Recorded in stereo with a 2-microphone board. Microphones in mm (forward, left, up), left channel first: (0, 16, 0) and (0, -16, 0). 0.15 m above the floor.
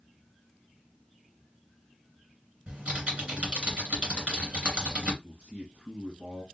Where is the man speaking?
45° right (ahead or behind), 1.9 m.